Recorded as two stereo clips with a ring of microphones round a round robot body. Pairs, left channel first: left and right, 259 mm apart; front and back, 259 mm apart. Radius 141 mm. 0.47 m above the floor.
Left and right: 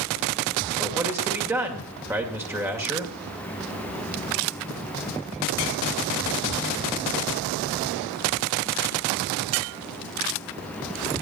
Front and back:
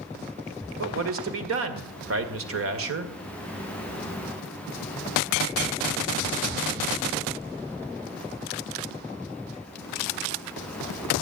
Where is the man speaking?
170° right, 2 m.